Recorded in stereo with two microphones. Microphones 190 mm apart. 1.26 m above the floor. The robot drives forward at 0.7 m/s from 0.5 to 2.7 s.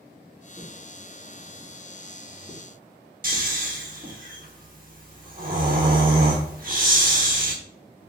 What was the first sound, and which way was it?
Footsteps, 20° right (ahead or behind).